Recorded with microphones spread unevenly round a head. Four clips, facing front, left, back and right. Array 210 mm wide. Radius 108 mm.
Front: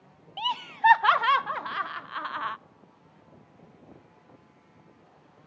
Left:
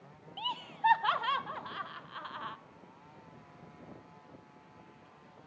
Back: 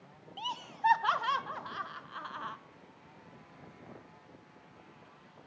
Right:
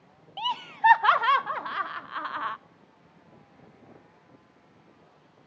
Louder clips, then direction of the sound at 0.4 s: Right 8 dB, front 8 dB; 65° right.